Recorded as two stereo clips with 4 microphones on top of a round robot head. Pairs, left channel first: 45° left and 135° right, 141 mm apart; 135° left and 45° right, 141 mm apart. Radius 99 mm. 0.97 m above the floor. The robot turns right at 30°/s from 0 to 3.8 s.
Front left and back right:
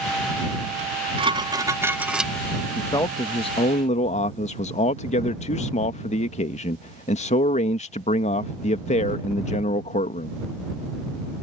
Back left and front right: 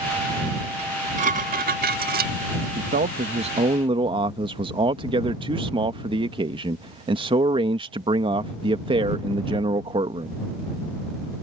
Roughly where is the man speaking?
Ahead right.